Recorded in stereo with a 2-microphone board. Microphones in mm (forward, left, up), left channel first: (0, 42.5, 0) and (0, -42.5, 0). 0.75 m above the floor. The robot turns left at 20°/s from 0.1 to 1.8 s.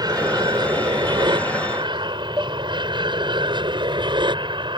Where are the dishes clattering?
40° right (ahead or behind).